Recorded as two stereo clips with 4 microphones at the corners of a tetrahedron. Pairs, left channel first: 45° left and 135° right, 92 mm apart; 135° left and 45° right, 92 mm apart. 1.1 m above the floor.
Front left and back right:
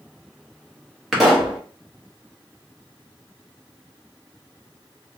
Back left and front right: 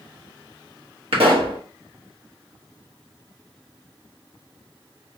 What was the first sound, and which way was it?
A pop, 45° right.